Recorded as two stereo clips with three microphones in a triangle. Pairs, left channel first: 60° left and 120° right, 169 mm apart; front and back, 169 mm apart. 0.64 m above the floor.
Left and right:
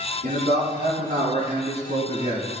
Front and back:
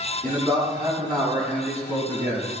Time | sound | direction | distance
0.2 | a man speaking | 90° right | 4.5 m